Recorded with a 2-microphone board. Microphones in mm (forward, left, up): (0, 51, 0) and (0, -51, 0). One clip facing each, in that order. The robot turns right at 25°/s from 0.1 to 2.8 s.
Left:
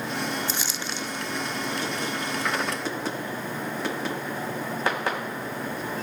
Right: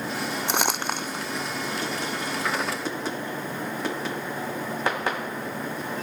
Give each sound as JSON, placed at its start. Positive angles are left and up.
{"t": 0.5, "sound": "crumpling", "side_deg": -65}